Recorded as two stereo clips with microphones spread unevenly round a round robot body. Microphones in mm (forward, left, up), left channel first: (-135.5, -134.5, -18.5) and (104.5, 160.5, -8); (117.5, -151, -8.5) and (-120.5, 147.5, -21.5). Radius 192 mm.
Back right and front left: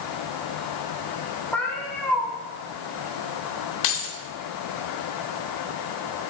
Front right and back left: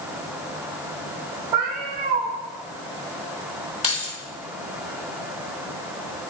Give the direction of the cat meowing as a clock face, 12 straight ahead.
7 o'clock.